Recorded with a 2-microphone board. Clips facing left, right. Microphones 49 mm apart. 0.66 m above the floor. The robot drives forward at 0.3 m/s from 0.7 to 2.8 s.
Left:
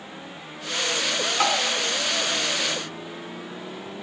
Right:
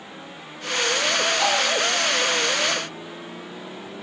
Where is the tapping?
50° left (ahead or behind), 3 m.